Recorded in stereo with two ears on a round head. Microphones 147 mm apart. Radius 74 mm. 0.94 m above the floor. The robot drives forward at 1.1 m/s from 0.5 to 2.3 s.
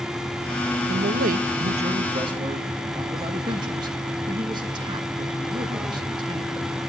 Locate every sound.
0.9 s a man speaking: 55° right (ahead or behind), 0.9 m; by 6.8 s 25° right (ahead or behind), 1.6 m